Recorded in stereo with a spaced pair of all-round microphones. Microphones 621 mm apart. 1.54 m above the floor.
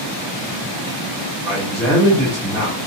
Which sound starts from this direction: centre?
A man speaking, at 1.4 s.